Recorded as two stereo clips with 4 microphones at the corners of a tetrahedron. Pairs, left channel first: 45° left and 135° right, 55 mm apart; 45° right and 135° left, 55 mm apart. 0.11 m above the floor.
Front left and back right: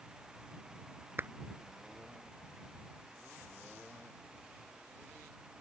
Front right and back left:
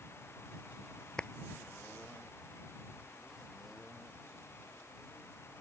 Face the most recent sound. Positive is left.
turn(degrees=-110)